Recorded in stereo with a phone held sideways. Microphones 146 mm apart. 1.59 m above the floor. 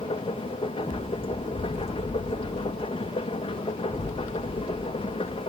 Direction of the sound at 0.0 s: 40° left (ahead or behind).